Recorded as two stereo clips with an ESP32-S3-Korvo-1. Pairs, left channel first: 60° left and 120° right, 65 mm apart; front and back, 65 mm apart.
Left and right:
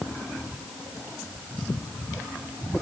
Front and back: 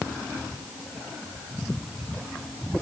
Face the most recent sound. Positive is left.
No sound to turn to.